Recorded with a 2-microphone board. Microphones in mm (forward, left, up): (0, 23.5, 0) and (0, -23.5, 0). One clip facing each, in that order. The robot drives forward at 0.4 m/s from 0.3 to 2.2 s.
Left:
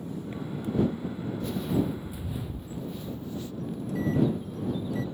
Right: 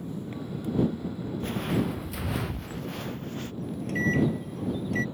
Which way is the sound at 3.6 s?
70° right (ahead or behind).